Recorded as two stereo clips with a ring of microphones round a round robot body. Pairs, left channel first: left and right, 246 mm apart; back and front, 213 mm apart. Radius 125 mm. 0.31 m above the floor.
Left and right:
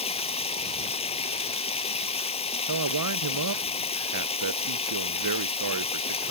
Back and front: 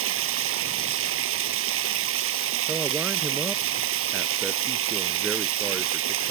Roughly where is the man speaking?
Right.